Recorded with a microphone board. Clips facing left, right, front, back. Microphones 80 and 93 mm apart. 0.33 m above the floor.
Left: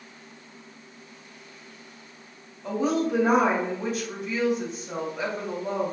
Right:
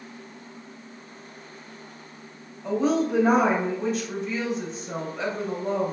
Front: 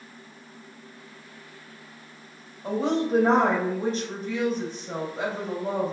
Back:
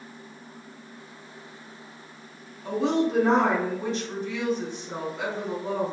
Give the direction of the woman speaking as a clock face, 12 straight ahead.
12 o'clock.